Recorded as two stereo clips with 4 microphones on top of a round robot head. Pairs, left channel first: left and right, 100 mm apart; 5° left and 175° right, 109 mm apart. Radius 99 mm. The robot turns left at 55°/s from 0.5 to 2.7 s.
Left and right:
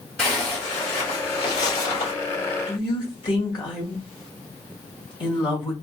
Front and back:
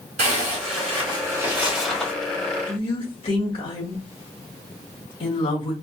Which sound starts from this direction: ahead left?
A woman speaking, at 2.7 s.